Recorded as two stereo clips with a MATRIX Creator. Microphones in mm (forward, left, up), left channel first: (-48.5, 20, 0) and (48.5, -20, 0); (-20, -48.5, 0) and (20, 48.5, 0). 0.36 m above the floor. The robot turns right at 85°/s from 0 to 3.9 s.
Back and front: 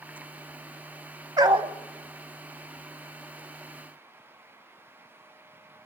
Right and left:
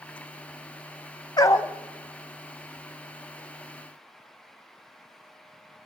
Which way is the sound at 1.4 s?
70° right.